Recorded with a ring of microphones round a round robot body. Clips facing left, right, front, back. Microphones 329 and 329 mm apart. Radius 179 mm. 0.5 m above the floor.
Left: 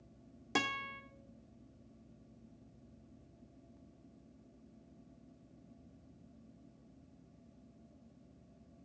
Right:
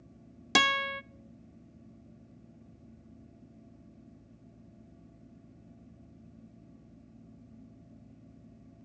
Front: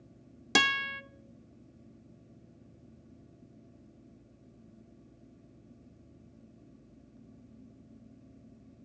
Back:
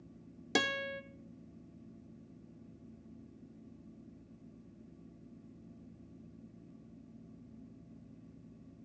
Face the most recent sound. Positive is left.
turn(degrees=-70)